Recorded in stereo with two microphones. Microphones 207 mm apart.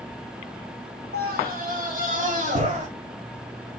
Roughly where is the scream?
Right.